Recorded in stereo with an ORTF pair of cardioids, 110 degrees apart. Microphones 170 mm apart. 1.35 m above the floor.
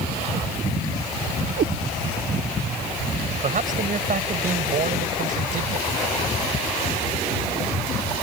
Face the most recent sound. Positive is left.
turn(degrees=-50)